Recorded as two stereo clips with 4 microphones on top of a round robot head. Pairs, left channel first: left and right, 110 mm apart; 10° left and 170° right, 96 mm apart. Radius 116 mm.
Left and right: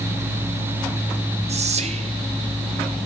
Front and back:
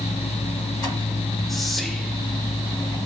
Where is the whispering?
80° right, 0.9 m.